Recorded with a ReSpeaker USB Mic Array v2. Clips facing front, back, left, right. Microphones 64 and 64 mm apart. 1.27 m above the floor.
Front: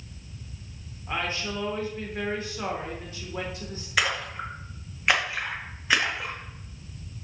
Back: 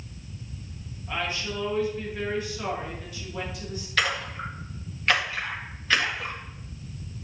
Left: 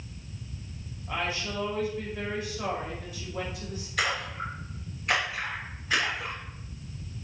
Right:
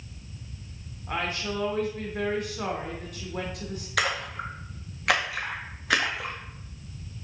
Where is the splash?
75° right, 1.9 m.